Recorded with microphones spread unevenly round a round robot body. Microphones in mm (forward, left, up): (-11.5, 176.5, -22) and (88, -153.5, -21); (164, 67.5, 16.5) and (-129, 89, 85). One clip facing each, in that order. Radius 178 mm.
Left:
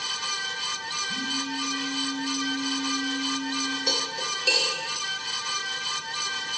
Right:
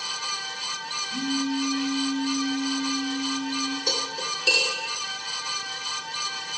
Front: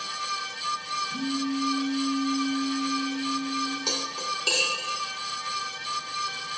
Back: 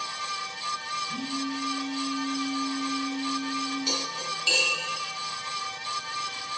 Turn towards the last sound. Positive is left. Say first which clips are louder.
# even, even
turn(degrees=-5)